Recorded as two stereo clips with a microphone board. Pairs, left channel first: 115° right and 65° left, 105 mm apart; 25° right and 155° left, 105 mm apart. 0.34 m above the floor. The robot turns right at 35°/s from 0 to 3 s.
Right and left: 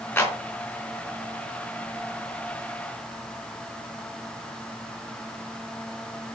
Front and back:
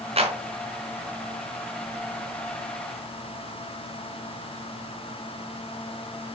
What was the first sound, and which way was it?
A clap, 175° left.